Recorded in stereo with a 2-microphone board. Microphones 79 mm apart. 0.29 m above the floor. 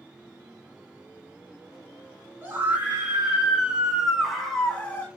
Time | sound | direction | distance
2.4 | a scream | 25° right (ahead or behind) | 2.5 m